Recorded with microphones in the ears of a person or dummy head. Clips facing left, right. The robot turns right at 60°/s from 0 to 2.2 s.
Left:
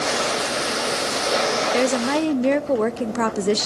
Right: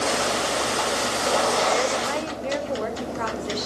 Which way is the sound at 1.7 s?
50° left (ahead or behind).